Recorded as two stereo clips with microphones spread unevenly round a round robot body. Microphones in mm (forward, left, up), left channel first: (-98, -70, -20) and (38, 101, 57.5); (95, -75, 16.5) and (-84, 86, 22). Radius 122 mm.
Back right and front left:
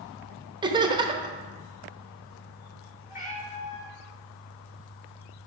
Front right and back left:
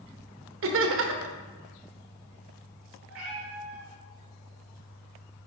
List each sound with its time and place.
0.6 s laughter: 130° left, 1.0 m
3.1 s a cat meowing: 170° left, 2.5 m